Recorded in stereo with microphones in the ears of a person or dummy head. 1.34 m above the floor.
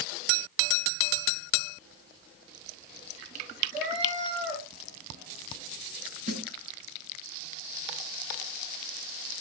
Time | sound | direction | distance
3.7 | a cat meowing | 50° right (ahead or behind) | 5.5 m
6.3 | a snare drum | 55° right (ahead or behind) | 4.5 m